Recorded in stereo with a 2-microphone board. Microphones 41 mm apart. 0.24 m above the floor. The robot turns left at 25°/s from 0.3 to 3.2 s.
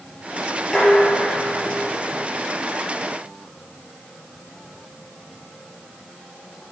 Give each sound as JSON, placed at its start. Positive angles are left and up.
{"t": 0.7, "sound": "dishes clattering", "azimuth_deg": 10, "distance_m": 3.5}